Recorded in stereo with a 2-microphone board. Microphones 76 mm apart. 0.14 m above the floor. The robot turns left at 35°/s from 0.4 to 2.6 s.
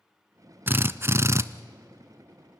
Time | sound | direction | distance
0.7 | a drill | 30° right (ahead or behind) | 0.5 m